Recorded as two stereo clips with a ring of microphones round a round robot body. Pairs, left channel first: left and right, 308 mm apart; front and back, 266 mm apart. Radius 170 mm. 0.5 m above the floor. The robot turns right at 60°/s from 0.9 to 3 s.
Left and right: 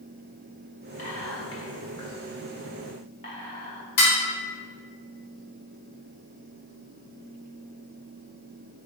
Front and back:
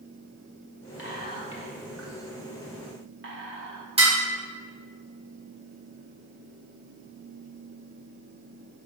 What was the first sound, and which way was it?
Whispering, 30° left.